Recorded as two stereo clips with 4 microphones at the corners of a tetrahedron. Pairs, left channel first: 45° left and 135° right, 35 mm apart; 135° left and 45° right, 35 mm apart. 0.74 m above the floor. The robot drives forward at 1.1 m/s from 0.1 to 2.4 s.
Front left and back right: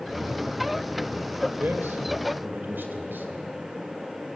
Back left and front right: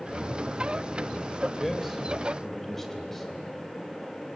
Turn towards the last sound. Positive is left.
turn(degrees=-140)